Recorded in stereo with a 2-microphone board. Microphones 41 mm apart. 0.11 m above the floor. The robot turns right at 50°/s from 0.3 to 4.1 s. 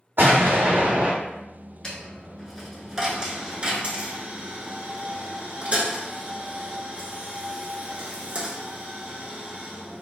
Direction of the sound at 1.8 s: 20° left (ahead or behind).